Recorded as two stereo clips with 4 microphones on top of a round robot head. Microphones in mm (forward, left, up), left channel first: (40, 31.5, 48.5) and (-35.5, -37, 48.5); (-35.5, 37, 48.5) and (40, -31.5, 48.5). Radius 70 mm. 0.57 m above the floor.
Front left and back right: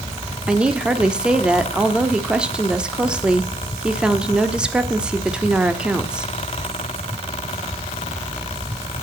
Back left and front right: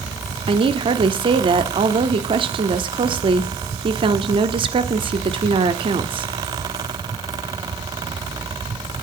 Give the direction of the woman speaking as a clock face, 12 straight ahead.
2 o'clock.